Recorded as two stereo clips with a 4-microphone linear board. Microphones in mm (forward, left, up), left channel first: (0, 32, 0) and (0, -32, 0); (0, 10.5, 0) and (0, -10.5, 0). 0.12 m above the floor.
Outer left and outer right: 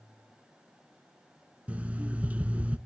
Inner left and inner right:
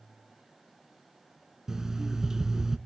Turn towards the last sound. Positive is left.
turn(degrees=-25)  # may be behind; listen again after turning